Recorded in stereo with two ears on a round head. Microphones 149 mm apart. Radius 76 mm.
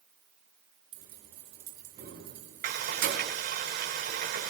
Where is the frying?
55° right (ahead or behind), 8.5 m.